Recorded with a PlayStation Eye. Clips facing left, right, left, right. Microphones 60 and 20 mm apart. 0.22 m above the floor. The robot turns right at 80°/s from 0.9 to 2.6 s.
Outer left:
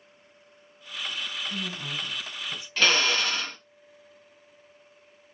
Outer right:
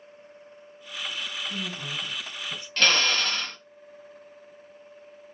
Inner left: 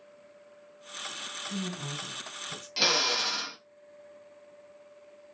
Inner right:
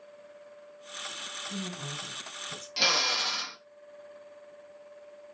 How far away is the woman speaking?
About 1.6 m.